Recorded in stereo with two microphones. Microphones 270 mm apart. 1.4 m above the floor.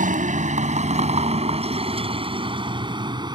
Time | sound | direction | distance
0.0 | a vehicle | 30° right (ahead or behind) | ?